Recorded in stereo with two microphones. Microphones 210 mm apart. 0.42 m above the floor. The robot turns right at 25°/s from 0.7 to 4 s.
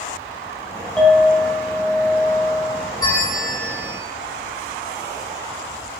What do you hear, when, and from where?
1.0 s a clink: 5° left, 0.9 m; by 2.9 s 50° left, 0.9 m
3.0 s a bell: 15° left (ahead or behind), 1.3 m; by 4.0 s centre (ahead or behind), 1.3 m